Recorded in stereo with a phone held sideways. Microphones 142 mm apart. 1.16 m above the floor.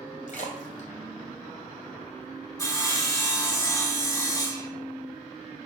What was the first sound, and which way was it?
A splash, 65° left (ahead or behind).